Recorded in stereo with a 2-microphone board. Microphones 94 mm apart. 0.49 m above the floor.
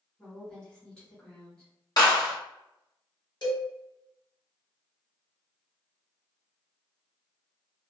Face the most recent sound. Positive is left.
turn(degrees=55)  # may be behind; listen again after turning